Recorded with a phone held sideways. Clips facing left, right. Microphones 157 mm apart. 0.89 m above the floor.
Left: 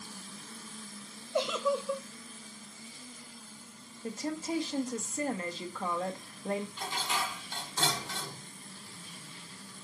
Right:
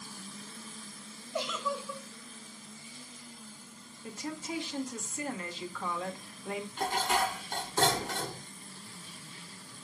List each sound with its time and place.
1.3 s a giggle: 70° left (ahead or behind), 2 m
4.0 s a woman speaking: 40° left (ahead or behind), 1.6 m
6.8 s dishes clattering: 60° right (ahead or behind), 0.8 m